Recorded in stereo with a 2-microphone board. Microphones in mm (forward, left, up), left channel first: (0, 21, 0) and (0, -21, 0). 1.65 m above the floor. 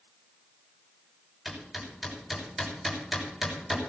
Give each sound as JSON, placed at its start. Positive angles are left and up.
{"t": 1.4, "sound": "hammering", "side_deg": -10, "distance_m": 6.0}